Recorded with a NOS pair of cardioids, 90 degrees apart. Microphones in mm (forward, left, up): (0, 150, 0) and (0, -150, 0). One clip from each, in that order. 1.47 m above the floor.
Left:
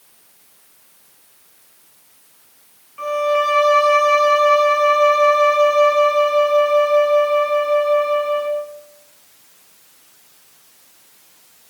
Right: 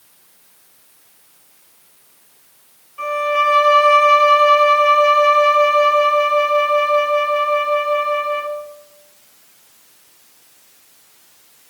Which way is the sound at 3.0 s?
15° left.